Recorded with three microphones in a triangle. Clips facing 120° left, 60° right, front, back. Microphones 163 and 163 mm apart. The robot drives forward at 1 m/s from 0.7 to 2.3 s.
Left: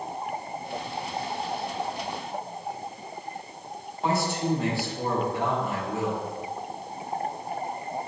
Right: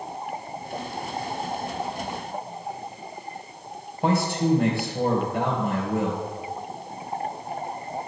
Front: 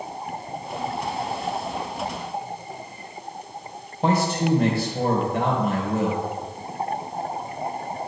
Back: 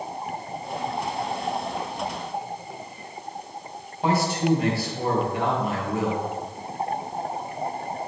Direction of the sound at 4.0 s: 35° right.